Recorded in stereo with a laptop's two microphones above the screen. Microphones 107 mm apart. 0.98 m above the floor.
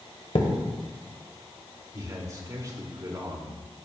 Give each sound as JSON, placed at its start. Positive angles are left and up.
{"t": 0.3, "sound": "a thud", "side_deg": 70, "distance_m": 1.5}
{"t": 1.9, "sound": "a man speaking", "side_deg": -35, "distance_m": 3.0}